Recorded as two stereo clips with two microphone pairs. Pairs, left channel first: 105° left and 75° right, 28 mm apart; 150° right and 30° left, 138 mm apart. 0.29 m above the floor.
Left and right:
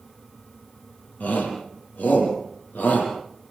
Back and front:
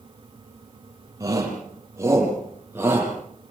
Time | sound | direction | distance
1.2 | a shout | 95° left | 9 m